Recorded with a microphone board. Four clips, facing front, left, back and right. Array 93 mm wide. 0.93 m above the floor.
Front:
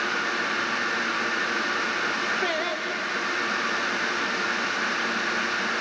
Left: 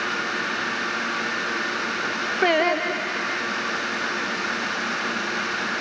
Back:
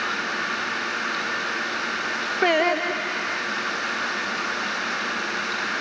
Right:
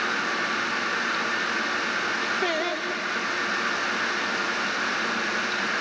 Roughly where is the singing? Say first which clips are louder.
Left 11 dB, back 7 dB; behind left.